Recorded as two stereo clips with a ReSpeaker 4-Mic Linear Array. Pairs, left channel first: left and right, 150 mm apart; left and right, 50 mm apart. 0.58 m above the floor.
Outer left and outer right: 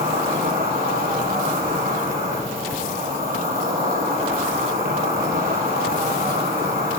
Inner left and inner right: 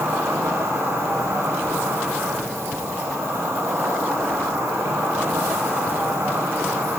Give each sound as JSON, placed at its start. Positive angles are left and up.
{"t": 0.0, "sound": "an insect", "side_deg": -80, "distance_m": 3.0}